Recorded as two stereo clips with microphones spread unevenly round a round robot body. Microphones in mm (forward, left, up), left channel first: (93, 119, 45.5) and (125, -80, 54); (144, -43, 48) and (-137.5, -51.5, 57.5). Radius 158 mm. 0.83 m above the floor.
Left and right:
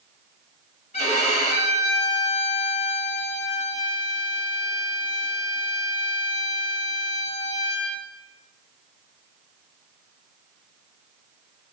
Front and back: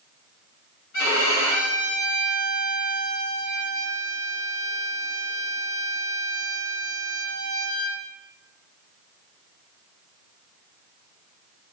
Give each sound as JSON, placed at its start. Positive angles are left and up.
{"t": 0.9, "sound": "a violin", "azimuth_deg": 45, "distance_m": 1.8}